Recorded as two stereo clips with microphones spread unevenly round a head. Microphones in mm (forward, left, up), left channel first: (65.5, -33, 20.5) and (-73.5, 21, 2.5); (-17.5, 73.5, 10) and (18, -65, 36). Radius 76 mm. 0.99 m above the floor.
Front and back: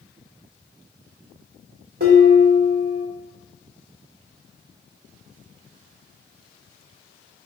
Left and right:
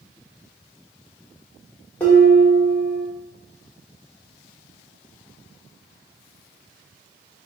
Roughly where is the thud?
No thud in this recording.